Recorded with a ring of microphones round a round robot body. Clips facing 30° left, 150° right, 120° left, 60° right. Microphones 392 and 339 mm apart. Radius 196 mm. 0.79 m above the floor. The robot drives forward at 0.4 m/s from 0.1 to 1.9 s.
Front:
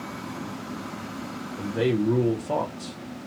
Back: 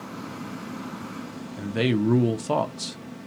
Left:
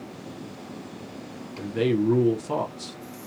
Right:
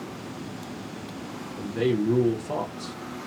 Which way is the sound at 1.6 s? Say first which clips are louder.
Even, left 1 dB; 175° right.